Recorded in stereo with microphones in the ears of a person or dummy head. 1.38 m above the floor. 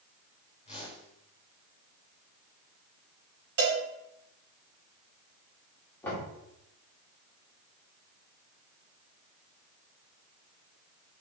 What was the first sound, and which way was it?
A whoosh, 35° left (ahead or behind).